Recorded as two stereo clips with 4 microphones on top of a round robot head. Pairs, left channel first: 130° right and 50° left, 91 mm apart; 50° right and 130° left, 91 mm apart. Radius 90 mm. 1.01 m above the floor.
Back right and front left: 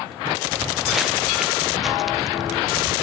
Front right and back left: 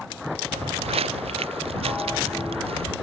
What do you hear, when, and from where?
0.5 s footsteps: 135° left; by 2.9 s 145° left